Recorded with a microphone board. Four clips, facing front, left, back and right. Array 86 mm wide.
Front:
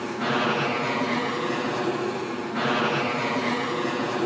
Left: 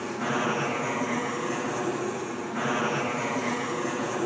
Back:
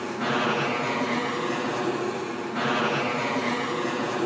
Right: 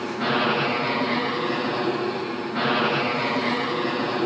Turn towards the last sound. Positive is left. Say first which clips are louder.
# right 4 dB, front 1 dB
turn(degrees=-80)